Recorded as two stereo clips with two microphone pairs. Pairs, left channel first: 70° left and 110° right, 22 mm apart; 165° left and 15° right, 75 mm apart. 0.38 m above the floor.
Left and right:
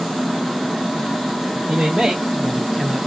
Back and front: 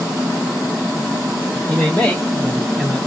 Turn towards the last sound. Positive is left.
turn(degrees=70)